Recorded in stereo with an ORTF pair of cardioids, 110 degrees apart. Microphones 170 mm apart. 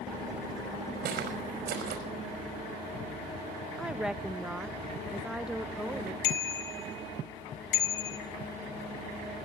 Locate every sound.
1.0 s footsteps: 70° right, 5 m
3.8 s a woman speaking: 5° right, 0.8 m
6.2 s a bicycle bell: 70° left, 3.5 m